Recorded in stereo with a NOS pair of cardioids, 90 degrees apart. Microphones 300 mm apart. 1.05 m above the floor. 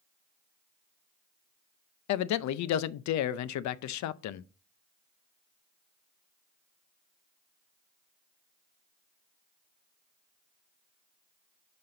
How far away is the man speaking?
About 0.6 m.